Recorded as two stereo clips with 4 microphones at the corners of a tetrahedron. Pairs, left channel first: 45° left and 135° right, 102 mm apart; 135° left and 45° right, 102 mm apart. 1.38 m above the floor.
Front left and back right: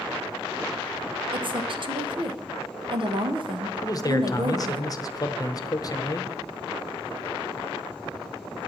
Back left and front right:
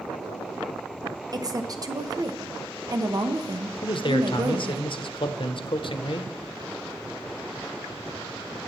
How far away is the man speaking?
About 0.9 m.